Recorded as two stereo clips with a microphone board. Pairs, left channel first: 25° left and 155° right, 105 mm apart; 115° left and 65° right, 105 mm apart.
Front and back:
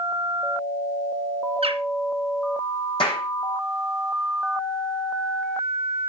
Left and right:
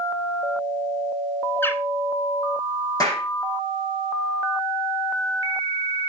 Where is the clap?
55° left, 5 m.